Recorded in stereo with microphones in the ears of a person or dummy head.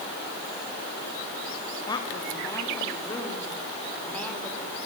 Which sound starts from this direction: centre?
A woman speaking, at 1.9 s.